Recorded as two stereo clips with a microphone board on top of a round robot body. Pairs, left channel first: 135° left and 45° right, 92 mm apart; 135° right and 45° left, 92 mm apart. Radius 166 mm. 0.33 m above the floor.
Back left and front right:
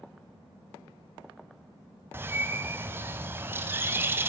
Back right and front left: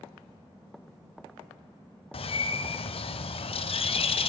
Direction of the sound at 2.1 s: 115° right.